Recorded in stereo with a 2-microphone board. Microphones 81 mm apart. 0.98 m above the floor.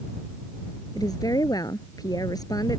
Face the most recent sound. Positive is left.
turn(degrees=50)  # may be behind; listen again after turning